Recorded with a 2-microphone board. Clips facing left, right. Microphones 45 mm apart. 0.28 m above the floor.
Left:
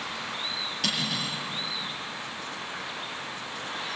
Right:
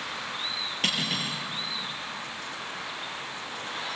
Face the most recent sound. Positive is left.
turn(degrees=-35)  # may be behind; listen again after turning